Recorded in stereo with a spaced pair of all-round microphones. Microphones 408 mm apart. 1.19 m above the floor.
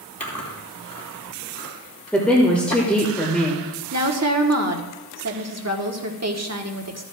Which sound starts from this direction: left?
Chewing, at 0.2 s.